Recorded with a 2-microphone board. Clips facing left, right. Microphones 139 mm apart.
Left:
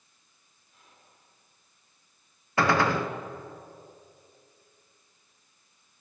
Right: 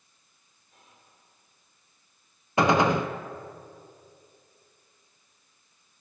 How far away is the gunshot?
About 0.6 m.